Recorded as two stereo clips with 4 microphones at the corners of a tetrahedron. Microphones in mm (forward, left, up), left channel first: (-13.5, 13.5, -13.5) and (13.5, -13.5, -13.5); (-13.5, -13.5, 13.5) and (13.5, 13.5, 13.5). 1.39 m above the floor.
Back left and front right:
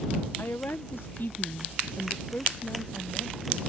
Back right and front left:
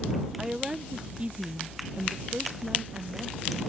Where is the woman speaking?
125° left; by 3.7 s 80° left.